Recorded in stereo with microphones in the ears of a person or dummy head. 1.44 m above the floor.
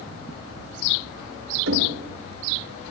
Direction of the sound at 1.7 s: 70° right (ahead or behind).